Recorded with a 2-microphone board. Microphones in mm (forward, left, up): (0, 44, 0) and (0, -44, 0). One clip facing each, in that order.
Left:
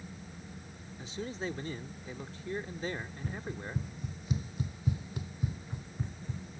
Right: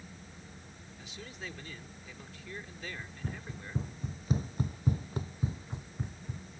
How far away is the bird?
No bird in this recording.